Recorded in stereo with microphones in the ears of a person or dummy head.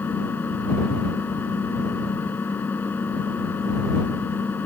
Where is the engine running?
10° left (ahead or behind).